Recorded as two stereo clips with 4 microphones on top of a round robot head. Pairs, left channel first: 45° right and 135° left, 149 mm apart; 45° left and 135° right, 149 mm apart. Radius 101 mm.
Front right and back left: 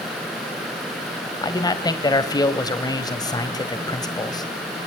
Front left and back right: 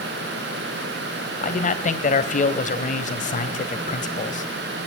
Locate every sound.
1.4 s a man speaking: 15° left, 2 m